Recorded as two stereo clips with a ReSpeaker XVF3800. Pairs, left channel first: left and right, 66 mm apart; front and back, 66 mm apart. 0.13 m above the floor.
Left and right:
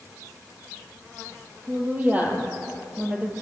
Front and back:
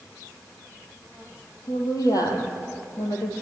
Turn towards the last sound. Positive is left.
turn(degrees=-25)